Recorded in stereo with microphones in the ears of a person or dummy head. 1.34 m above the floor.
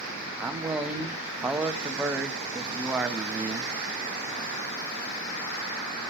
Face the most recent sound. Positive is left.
turn(degrees=0)  # may be behind; listen again after turning